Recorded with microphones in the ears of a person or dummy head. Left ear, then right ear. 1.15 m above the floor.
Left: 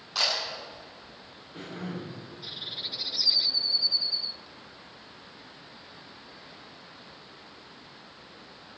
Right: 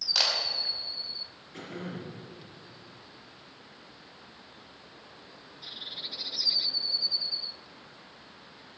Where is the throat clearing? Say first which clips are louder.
Left 1 dB; 80° right, 5 m.